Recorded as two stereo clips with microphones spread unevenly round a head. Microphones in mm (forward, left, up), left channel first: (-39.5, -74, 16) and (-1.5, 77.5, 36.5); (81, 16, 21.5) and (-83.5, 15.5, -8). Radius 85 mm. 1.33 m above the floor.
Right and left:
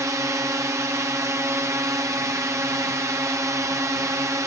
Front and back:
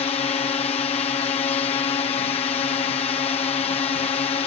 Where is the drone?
15° left.